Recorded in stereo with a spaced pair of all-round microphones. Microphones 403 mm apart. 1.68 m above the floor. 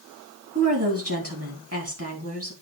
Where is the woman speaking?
35° right (ahead or behind), 3 m.